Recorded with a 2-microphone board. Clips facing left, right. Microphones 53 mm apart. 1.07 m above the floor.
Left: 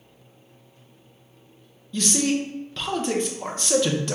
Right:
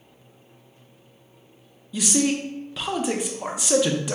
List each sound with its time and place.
1.9 s a man speaking: 10° right (ahead or behind), 0.5 m